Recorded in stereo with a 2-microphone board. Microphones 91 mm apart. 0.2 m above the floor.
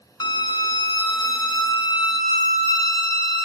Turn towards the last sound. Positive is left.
turn(degrees=50)  # may be behind; listen again after turning